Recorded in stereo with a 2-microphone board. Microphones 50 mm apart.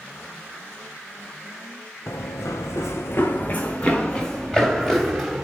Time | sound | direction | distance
2.1 | running footsteps | 80° left | 1.4 m